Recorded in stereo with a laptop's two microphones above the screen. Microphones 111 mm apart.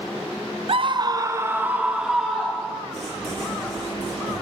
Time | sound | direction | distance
0.7 | a scream | 55° right (ahead or behind) | 0.5 m
2.9 | writing | 80° right | 7 m